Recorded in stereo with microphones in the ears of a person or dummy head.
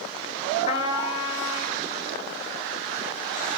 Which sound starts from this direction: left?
A trumpet, at 0.7 s.